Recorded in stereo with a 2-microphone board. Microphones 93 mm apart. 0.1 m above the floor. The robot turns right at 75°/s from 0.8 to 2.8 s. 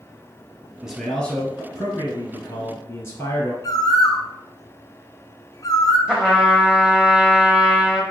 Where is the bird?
45° left (ahead or behind), 0.5 m.